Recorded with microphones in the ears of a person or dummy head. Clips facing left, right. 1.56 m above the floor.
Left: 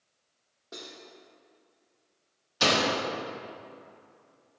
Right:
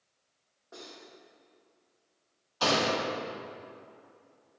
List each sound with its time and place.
0.7 s cutlery clinking: 50° left (ahead or behind), 1.9 m
2.6 s a door slam: 30° left (ahead or behind), 1.9 m